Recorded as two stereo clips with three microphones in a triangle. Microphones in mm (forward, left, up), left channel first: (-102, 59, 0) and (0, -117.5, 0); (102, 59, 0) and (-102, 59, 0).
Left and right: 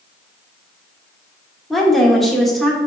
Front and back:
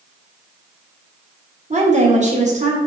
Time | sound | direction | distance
1.7 | a woman speaking | 150° right | 1.5 m